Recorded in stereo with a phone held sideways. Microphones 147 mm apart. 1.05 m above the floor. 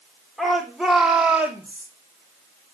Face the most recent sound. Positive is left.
turn(degrees=-15)  # may be behind; listen again after turning